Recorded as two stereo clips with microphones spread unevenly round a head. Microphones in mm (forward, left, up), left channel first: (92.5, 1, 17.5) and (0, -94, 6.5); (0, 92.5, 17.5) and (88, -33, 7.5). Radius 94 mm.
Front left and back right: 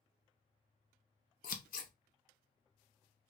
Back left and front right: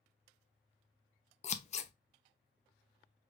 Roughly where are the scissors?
Left.